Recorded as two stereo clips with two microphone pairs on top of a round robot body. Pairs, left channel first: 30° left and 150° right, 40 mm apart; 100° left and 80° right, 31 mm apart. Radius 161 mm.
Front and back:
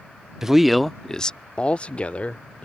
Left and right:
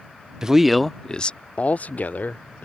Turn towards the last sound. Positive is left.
turn(degrees=85)